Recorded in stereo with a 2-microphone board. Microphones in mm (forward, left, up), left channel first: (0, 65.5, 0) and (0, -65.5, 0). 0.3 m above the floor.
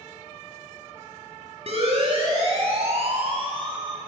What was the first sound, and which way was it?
A siren, 55° right (ahead or behind).